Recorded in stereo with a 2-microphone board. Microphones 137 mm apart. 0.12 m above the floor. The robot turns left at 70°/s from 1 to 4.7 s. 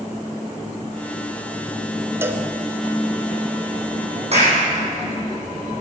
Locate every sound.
2.2 s a cowbell: 15° right (ahead or behind), 0.7 m; by 2.5 s 20° right (ahead or behind), 0.7 m
4.3 s a clap: 50° right (ahead or behind), 4 m; by 4.6 s 65° right (ahead or behind), 4 m